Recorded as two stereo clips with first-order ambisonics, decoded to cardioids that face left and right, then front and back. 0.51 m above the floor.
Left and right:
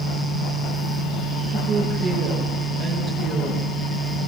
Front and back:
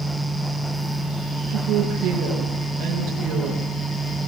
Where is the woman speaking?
145° right, 8 m.